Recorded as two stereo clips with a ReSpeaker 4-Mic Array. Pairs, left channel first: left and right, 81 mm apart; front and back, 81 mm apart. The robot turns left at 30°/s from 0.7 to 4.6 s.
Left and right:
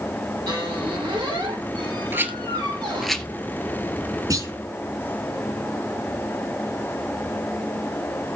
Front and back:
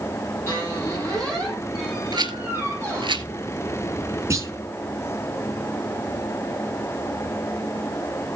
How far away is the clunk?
About 5 m.